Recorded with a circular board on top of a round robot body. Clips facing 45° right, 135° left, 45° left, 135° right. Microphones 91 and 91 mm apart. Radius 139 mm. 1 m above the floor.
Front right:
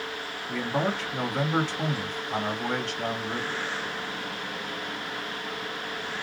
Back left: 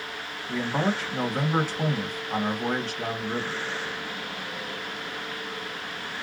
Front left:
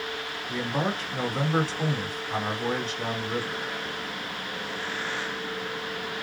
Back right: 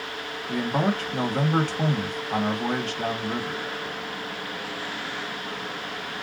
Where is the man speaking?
145° right, 1.7 m.